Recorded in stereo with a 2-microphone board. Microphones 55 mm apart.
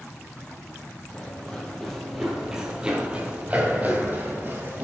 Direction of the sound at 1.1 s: 15° left (ahead or behind).